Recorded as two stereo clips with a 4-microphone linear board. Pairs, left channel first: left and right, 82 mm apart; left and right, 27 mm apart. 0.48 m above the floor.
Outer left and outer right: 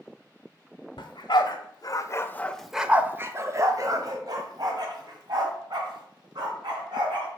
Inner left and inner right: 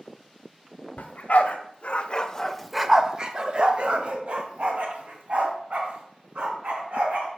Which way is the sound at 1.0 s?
75° left (ahead or behind).